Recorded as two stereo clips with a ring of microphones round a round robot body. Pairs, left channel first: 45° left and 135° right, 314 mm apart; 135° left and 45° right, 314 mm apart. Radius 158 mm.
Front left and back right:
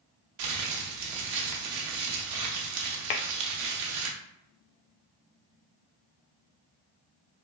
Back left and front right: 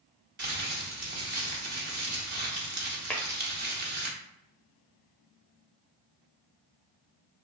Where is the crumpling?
105° right, 0.6 m.